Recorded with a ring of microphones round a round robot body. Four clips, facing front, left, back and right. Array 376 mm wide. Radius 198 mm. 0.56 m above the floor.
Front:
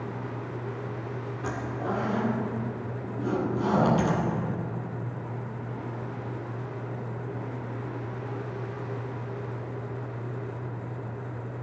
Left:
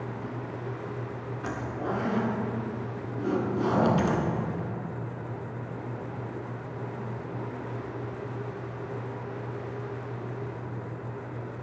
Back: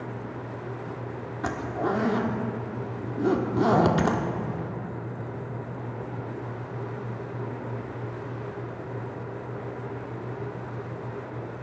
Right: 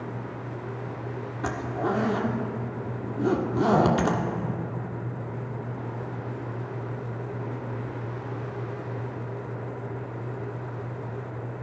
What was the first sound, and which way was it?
A zipper, 140° right.